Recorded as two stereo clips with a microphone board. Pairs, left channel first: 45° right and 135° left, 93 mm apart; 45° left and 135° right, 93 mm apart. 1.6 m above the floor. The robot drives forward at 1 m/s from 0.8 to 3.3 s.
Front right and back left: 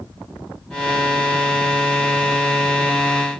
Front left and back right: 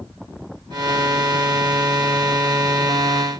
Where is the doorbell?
No doorbell in this recording.